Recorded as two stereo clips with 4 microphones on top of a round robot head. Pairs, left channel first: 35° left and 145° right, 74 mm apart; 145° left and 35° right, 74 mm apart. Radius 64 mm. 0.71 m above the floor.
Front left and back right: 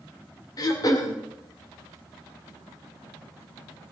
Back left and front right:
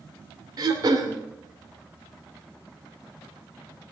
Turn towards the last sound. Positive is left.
turn(degrees=0)